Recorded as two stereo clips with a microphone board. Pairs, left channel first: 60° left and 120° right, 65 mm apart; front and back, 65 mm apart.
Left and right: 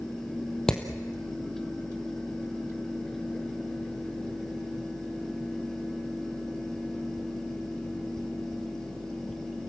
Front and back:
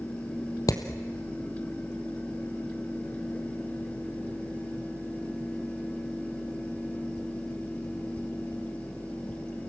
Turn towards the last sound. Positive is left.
turn(degrees=-20)